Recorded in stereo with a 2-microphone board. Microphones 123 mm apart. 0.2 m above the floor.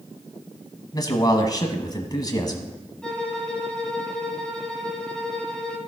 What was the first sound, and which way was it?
A man speaking, 35° left (ahead or behind).